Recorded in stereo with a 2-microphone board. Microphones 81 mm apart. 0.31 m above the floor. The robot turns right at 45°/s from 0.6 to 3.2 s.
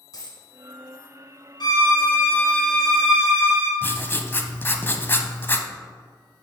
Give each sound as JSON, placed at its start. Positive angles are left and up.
{"t": 0.1, "sound": "a dropped coin", "side_deg": 55, "distance_m": 1.5}
{"t": 1.6, "sound": "a violin", "azimuth_deg": 115, "distance_m": 1.7}
{"t": 3.8, "sound": "writing", "side_deg": 25, "distance_m": 0.6}